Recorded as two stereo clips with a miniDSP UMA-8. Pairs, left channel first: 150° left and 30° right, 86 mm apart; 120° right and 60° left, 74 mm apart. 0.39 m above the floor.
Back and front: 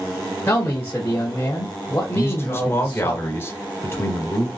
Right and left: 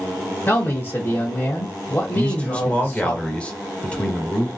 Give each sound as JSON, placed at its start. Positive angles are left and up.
{"t": 0.5, "sound": "a man speaking", "azimuth_deg": -160, "distance_m": 1.2}
{"t": 2.1, "sound": "a man speaking", "azimuth_deg": 180, "distance_m": 1.4}